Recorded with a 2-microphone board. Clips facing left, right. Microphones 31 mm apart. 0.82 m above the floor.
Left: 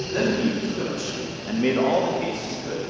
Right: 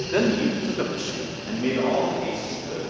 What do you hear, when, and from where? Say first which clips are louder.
0.1 s a man speaking: right 1 dB; 65° right (ahead or behind), 1.9 m; by 2.8 s 70° left (ahead or behind), 2 m